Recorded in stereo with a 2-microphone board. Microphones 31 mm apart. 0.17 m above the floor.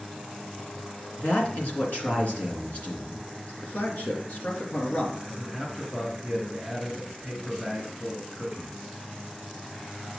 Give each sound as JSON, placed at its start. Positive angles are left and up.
{"t": 1.2, "sound": "a man speaking", "side_deg": 55, "distance_m": 2.5}
{"t": 3.6, "sound": "a man speaking", "side_deg": 60, "distance_m": 2.0}
{"t": 5.2, "sound": "a man speaking", "side_deg": 5, "distance_m": 2.5}